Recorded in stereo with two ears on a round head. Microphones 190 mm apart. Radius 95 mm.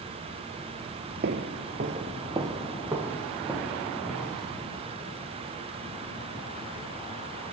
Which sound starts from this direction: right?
Footsteps, at 1.2 s.